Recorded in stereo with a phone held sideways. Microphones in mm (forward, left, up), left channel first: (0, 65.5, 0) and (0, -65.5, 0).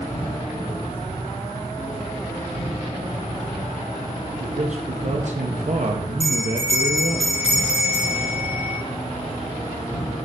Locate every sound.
0.0 s an insect: 70° left (ahead or behind), 2.5 m
4.4 s a man speaking: 65° right (ahead or behind), 0.6 m
6.2 s a bell: 60° left (ahead or behind), 1.6 m